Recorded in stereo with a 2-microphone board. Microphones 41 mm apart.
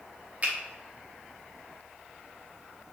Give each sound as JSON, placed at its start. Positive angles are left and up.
{"t": 0.4, "sound": "a finger snap", "side_deg": -35, "distance_m": 0.6}